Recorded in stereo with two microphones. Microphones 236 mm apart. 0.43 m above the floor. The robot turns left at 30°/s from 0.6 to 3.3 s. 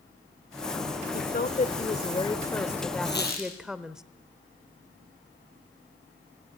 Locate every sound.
1.1 s a woman speaking: 60° left, 1.1 m; by 4.0 s 5° right, 1.1 m
3.0 s a squeak: 50° left (ahead or behind), 6 m; by 3.5 s 40° left (ahead or behind), 6 m